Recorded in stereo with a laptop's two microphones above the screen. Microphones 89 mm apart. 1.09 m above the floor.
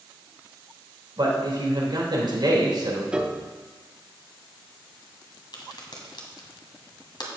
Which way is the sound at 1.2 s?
55° right (ahead or behind).